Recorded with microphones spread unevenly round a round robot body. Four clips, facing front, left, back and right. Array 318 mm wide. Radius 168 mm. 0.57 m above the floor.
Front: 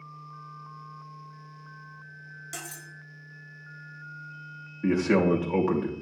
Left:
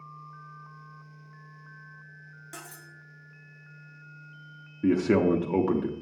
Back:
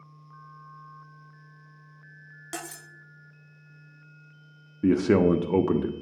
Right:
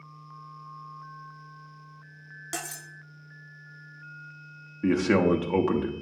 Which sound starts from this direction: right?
Cutlery clinking, at 2.5 s.